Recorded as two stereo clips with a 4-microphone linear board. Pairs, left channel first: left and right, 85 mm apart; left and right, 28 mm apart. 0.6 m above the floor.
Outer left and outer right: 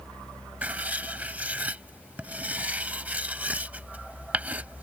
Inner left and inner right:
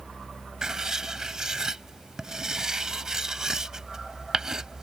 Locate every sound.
0.6 s writing: 20° right (ahead or behind)